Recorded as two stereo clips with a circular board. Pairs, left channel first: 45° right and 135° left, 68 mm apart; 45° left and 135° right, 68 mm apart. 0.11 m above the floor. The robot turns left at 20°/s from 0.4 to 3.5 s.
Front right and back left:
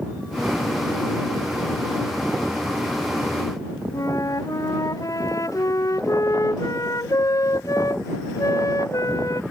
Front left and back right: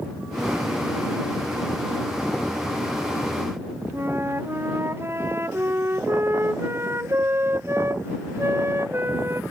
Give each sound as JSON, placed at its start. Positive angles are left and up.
{"t": 3.9, "sound": "a flute", "azimuth_deg": -80}